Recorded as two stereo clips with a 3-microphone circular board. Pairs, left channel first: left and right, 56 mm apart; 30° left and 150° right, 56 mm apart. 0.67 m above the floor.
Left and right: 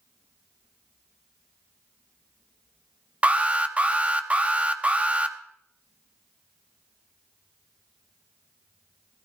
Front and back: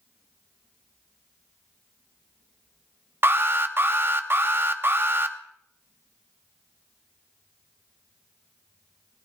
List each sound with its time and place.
3.2 s an alarm: 145° right, 0.8 m